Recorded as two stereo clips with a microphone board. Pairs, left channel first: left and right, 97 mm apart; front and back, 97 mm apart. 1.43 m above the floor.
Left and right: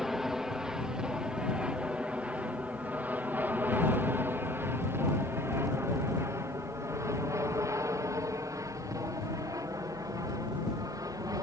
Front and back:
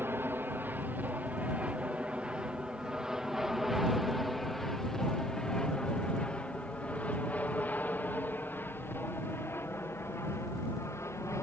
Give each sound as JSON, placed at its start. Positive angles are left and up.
{"t": 0.0, "sound": "an aircraft", "azimuth_deg": -170}